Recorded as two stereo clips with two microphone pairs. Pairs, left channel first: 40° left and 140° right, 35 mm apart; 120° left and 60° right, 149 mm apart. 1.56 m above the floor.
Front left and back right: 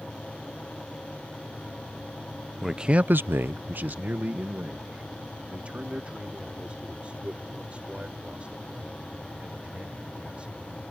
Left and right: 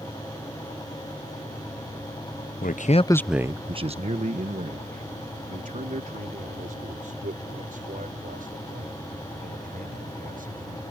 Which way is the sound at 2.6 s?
135° left.